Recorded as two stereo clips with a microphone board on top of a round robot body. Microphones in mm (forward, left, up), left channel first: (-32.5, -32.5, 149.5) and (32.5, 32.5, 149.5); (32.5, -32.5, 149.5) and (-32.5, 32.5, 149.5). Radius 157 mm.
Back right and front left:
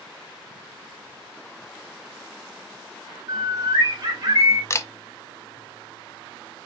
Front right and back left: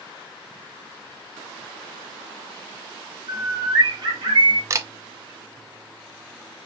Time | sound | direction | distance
3.3 | a bird | 95° left | 3 m
4.7 | a camera shutter | straight behind | 0.8 m